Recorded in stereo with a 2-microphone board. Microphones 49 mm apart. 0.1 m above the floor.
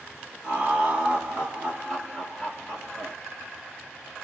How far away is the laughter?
About 1.6 m.